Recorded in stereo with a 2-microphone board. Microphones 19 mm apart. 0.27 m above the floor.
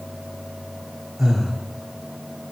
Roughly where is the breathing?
Centre.